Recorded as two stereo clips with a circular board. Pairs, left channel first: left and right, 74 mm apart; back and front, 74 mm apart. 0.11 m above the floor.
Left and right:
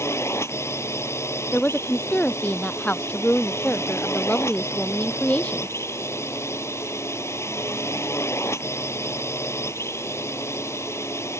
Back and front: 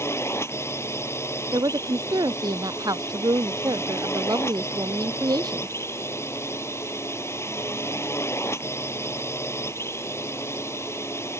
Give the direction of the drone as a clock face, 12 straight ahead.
8 o'clock.